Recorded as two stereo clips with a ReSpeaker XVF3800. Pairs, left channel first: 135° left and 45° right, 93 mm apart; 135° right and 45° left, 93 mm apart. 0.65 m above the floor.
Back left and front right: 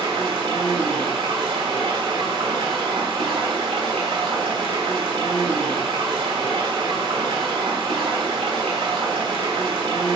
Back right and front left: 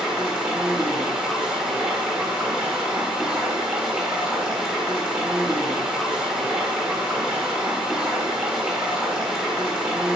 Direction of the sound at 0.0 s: 35° right.